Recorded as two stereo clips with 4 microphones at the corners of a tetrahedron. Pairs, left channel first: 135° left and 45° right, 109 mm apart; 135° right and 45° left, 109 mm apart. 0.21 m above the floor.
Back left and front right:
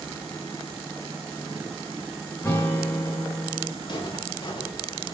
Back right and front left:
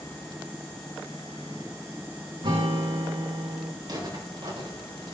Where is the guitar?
65° left, 7 m.